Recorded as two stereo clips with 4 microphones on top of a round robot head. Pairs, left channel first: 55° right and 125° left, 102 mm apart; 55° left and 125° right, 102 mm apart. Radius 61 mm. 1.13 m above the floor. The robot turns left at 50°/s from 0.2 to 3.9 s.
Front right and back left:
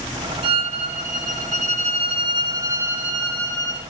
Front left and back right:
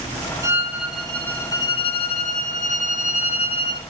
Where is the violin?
170° left, 2.5 m; by 3.8 s 5° left, 2.5 m.